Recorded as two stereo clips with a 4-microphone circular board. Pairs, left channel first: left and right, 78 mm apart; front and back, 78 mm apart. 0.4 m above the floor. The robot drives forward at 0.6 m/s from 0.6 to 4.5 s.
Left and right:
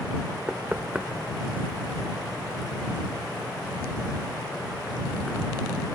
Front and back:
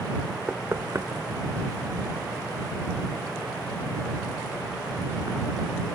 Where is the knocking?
145° right, 0.5 m; by 5.8 s 175° right, 2.5 m.